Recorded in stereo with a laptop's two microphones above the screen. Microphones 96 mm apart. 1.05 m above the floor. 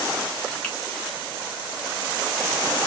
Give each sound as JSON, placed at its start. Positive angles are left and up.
{"t": 0.6, "sound": "a finger snap", "side_deg": 10, "distance_m": 1.1}